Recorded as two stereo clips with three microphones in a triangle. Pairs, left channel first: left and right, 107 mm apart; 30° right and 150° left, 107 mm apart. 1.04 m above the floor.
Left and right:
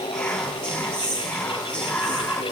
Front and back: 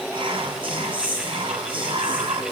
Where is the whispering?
165° left, 0.6 m.